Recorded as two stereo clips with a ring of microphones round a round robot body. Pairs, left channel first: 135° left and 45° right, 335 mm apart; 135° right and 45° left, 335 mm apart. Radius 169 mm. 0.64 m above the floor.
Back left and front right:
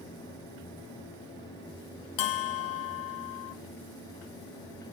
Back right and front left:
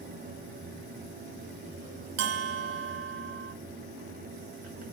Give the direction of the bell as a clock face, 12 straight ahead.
9 o'clock.